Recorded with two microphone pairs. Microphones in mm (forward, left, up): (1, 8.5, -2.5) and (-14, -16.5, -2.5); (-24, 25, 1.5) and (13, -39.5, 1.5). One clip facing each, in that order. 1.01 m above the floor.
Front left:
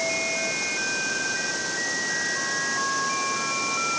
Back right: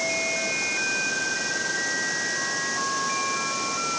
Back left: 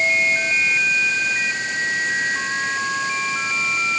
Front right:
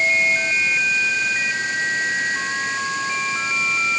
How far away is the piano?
No piano in this recording.